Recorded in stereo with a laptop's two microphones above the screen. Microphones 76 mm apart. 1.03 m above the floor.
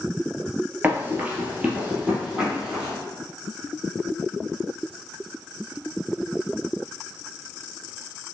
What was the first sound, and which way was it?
Running footsteps, 25° right (ahead or behind).